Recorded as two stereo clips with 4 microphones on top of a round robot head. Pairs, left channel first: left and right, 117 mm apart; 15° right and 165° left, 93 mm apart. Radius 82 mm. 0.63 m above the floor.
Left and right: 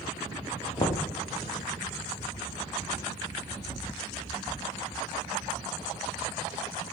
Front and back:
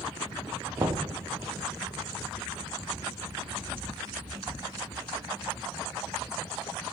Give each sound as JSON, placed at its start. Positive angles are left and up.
{"t": 0.8, "sound": "knocking", "azimuth_deg": 125, "distance_m": 0.6}